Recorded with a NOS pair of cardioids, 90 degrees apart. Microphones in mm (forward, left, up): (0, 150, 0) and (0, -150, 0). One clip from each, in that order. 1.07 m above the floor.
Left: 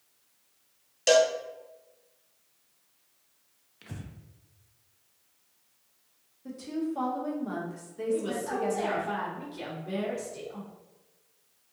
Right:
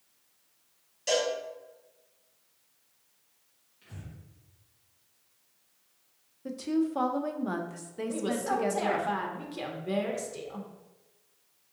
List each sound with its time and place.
1.1 s a cowbell: 55° left, 0.7 m
3.8 s breathing: 60° left, 0.6 m
6.5 s a woman speaking: 30° right, 0.6 m
8.1 s a woman speaking: 35° right, 0.8 m